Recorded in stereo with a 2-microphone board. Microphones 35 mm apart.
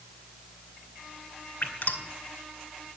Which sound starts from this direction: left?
Dripping, at 1.6 s.